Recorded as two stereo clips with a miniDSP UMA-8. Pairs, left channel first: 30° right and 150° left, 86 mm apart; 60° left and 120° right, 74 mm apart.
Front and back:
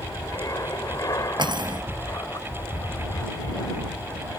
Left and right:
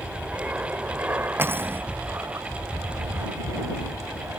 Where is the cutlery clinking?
Straight behind.